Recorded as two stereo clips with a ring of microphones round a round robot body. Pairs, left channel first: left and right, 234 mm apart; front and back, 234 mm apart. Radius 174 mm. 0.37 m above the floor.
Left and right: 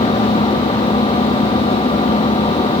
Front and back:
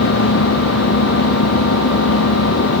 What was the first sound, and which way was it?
An engine running, 25° left.